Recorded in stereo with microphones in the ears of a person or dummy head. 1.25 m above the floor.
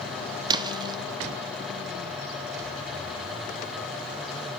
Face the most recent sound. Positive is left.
turn(degrees=-25)  # may be behind; listen again after turning